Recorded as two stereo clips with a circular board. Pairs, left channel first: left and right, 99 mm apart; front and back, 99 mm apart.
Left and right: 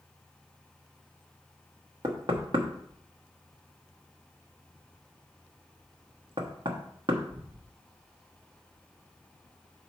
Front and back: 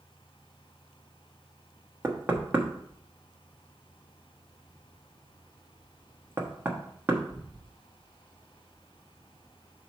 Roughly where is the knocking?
Behind right.